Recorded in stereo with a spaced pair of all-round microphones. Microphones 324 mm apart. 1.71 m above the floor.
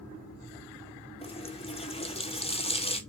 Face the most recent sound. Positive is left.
turn(degrees=20)  # may be behind; listen again after turning